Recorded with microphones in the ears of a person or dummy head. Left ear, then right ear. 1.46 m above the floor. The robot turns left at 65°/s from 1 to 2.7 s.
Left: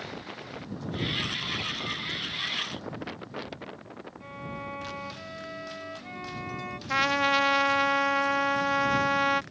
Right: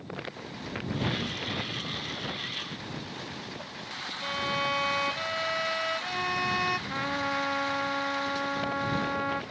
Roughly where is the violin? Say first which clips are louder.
Right 11 dB; right.